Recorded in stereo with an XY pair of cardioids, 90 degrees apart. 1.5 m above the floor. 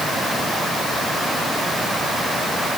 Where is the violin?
No violin in this recording.